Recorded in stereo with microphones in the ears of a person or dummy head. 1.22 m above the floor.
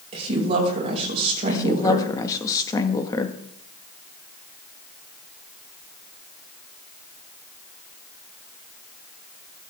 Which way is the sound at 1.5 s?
20° left (ahead or behind).